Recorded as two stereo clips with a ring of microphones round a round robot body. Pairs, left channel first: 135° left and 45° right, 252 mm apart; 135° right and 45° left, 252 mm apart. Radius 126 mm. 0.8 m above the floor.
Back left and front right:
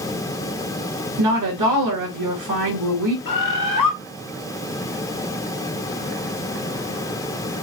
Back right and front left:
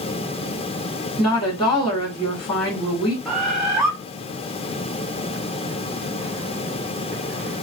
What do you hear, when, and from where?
1.2 s a woman speaking: 60° right, 2.5 m
3.2 s a bird: 135° left, 1.8 m